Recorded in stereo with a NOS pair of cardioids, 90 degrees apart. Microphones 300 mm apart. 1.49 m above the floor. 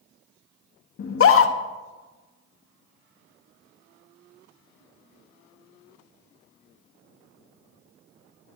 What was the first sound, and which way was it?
A scream, 45° left.